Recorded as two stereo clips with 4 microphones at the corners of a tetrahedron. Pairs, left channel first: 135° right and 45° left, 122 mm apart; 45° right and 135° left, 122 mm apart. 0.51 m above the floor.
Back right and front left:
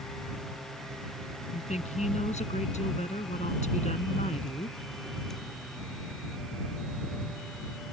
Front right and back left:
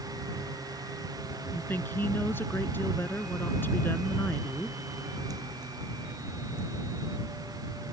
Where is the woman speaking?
120° right.